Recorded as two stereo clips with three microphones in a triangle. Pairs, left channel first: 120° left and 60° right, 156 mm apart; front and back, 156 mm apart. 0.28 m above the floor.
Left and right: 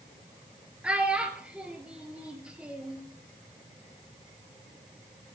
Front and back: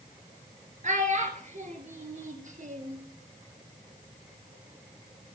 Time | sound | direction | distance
0.8 | a child speaking | 145° right | 3 m